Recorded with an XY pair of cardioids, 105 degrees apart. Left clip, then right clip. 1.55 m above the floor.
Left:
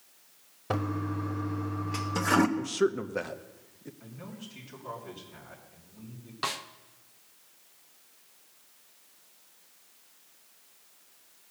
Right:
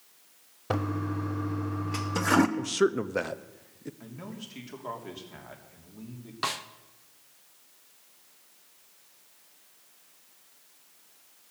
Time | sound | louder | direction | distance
0.7 | a toilet flushing | right 1 dB | 5° right | 0.7 m
2.6 | a man speaking | right 2 dB | 25° right | 0.6 m
4.0 | a man speaking | right 3 dB | 50° right | 3 m
6.4 | a snare drum | right 1 dB | 10° right | 0.7 m